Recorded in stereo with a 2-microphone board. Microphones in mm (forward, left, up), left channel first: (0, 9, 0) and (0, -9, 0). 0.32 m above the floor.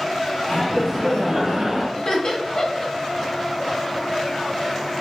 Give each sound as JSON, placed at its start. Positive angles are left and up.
{"t": 0.5, "sound": "laughter", "side_deg": 5, "distance_m": 1.3}
{"t": 1.9, "sound": "laughter", "side_deg": 45, "distance_m": 1.2}